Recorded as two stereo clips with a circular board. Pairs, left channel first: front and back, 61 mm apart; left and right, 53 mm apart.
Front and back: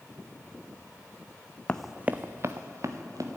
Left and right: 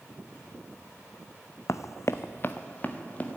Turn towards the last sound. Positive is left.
turn(degrees=150)